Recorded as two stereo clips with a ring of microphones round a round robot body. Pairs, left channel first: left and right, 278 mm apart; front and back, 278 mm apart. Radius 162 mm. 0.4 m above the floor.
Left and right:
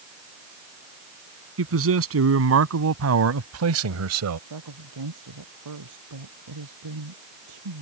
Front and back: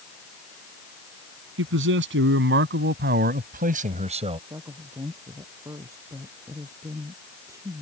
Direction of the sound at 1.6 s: 130° right.